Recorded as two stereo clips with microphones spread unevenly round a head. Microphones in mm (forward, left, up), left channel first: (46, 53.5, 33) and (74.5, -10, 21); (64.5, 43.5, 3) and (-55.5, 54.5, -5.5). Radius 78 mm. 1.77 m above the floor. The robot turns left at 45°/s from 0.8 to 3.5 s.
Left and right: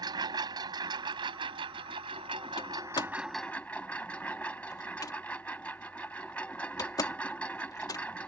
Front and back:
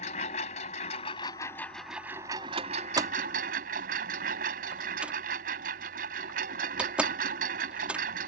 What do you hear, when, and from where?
0.0 s a lawn mower: 45° right; by 8.3 s 165° right
2.6 s a door slam: 135° left; by 8.1 s 95° left